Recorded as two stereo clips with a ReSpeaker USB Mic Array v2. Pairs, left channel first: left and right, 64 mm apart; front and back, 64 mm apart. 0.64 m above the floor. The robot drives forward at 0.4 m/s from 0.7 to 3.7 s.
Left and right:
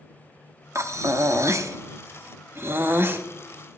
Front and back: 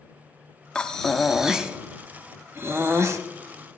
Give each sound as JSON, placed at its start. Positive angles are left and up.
{"t": 0.8, "sound": "breathing", "azimuth_deg": -75, "distance_m": 0.8}